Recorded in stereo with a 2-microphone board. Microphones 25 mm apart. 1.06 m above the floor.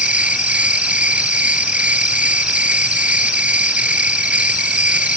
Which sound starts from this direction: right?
An insect, at 0.0 s.